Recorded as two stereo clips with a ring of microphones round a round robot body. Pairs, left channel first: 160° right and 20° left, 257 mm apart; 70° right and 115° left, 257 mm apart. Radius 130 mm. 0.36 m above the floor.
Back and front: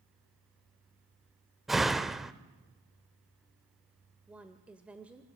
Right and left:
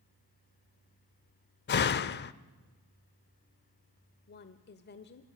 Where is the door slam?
65° right, 0.6 m.